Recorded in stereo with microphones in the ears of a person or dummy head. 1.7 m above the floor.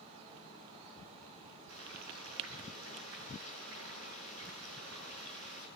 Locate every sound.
1.7 s frying: 70° right (ahead or behind), 9.5 m